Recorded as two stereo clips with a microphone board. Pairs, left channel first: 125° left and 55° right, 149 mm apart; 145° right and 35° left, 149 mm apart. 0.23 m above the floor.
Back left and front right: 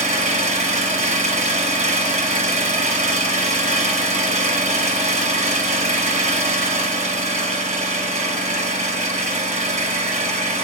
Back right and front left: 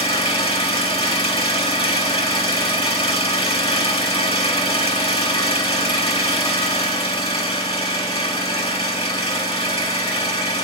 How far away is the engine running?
About 2.5 m.